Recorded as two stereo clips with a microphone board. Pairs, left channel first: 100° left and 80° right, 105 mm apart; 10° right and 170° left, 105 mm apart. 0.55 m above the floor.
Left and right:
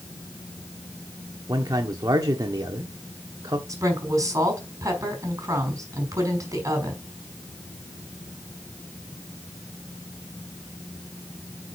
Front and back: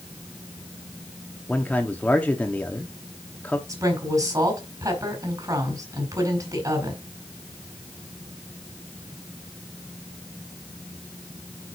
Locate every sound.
1.5 s a man speaking: 80° right, 1.1 m
3.7 s a woman speaking: 135° right, 4.5 m